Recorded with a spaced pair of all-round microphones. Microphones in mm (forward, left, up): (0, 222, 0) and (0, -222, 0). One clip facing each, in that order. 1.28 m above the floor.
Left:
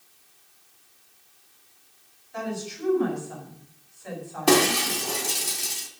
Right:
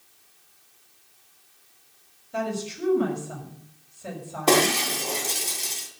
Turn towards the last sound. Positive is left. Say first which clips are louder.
# left 1 dB
turn(degrees=25)  # may be behind; listen again after turning